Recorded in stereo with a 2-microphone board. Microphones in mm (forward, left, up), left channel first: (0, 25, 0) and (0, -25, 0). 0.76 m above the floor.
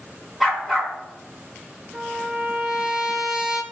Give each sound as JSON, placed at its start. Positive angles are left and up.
{"t": 0.4, "sound": "a dog barking", "side_deg": 0, "distance_m": 3.0}
{"t": 1.9, "sound": "a trumpet", "side_deg": -15, "distance_m": 1.9}